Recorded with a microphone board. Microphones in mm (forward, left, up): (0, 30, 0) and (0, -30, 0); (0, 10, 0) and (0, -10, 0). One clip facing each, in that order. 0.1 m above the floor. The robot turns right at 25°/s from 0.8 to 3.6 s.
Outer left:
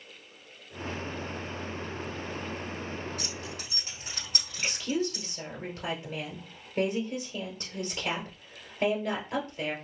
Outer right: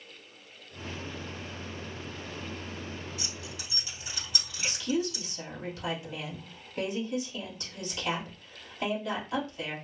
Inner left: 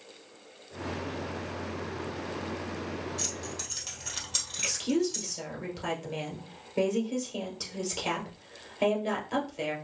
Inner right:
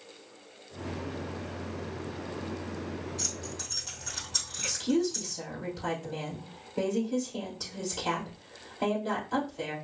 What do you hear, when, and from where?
3.2 s keys jangling: 50° left (ahead or behind), 1.9 m; by 5.3 s 45° left (ahead or behind), 1.9 m
4.6 s a woman speaking: 40° left (ahead or behind), 1.9 m